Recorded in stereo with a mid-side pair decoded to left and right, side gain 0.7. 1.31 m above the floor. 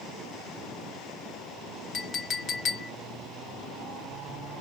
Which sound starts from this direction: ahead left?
A clink, at 1.9 s.